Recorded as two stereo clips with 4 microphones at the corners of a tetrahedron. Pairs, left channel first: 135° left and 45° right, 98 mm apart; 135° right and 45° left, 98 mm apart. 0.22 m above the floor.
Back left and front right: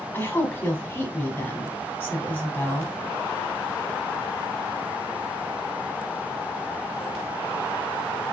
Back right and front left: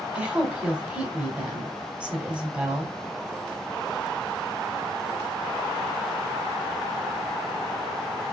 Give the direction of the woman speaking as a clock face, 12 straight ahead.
8 o'clock.